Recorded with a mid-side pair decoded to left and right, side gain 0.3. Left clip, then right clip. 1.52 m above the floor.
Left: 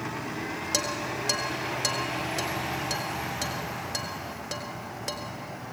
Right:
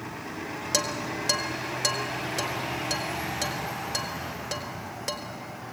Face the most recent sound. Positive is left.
turn(degrees=-15)